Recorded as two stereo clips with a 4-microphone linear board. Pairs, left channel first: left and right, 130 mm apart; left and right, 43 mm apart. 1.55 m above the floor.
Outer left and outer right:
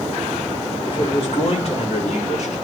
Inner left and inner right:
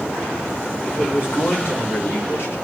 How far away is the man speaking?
About 5.5 m.